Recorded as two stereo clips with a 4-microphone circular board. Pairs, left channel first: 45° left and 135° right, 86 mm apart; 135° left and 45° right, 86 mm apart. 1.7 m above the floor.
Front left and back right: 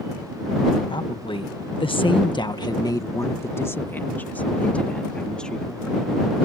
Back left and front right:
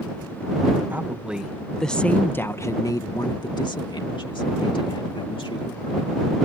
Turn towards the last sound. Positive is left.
turn(degrees=130)